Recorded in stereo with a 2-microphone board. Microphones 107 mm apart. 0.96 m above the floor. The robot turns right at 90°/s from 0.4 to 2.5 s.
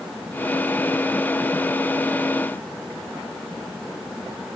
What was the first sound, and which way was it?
Only background noise.